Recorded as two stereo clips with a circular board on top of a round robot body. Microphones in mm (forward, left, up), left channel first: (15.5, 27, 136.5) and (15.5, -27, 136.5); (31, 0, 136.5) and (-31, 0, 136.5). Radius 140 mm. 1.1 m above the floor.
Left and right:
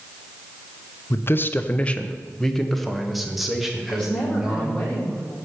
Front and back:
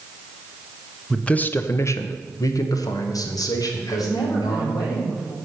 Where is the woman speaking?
20° left, 6 m.